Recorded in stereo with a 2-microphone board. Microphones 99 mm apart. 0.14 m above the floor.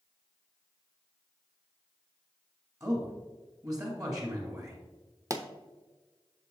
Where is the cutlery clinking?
No cutlery clinking in this recording.